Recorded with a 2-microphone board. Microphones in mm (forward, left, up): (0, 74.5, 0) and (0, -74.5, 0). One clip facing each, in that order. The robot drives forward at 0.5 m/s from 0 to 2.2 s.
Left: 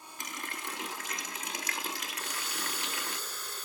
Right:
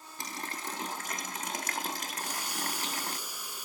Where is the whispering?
I don't hear whispering.